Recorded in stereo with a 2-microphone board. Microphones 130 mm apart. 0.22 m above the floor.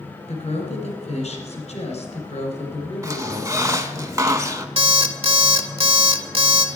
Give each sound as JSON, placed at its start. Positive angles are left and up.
{"t": 0.3, "sound": "a woman speaking", "side_deg": 55, "distance_m": 2.5}
{"t": 3.0, "sound": "a squeak", "side_deg": -25, "distance_m": 0.6}
{"t": 4.8, "sound": "an alarm clock", "side_deg": -50, "distance_m": 0.7}